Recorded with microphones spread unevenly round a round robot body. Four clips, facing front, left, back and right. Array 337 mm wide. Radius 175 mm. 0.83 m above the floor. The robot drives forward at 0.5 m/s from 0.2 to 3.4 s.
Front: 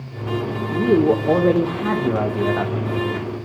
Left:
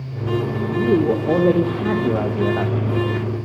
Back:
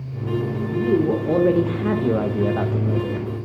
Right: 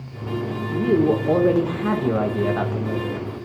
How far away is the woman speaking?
About 1.0 m.